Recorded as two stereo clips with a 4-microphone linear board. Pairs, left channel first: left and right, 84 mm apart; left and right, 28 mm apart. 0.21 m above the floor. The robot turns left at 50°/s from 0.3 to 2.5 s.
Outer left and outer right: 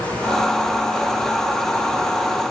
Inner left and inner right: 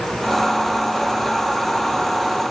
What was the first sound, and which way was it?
Only background noise.